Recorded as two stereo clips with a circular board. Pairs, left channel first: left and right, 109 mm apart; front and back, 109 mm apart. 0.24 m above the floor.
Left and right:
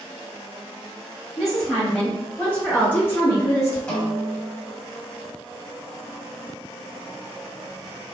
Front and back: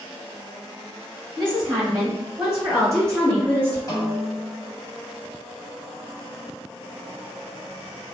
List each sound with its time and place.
1.4 s a woman speaking: straight behind, 1.3 m; by 3.8 s 55° left, 1.4 m
3.9 s a snare drum: 20° left, 0.8 m